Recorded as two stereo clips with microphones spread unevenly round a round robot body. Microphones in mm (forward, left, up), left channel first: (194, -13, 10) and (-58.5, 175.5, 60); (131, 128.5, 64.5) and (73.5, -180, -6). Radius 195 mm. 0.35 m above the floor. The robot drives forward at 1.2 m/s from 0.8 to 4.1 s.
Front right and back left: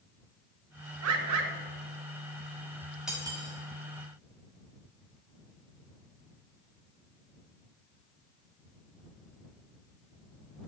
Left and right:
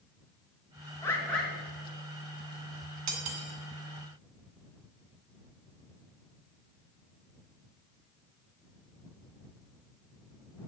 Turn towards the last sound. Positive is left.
turn(degrees=-155)